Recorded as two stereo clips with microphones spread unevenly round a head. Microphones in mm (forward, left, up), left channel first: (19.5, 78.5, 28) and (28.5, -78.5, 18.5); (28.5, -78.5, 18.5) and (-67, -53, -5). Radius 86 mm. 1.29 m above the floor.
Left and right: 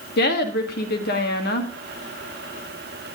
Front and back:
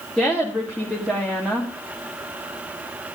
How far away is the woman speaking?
About 2.0 m.